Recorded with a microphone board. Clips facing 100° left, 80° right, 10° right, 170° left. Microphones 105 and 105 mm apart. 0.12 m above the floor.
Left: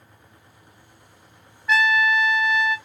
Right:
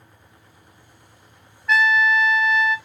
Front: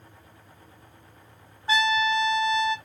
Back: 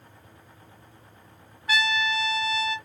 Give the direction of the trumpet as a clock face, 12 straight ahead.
12 o'clock.